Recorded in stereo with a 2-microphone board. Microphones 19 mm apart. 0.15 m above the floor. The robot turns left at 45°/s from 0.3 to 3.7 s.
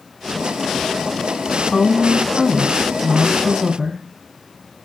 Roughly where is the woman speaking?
Ahead left.